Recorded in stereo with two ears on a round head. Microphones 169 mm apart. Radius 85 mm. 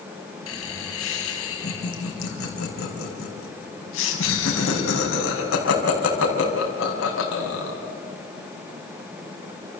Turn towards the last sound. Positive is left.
turn(degrees=80)